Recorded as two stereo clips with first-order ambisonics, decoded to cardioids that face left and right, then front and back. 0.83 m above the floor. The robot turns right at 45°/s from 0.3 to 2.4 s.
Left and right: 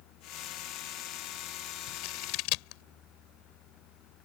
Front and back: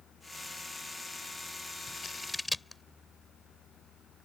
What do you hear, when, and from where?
1.9 s scissors: 60° left; by 2.8 s 85° left